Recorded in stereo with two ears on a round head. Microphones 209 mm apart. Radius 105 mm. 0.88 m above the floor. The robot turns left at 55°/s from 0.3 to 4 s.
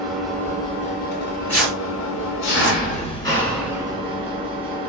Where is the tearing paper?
30° left (ahead or behind), 1.8 m; by 2.8 s 55° right (ahead or behind), 1.8 m.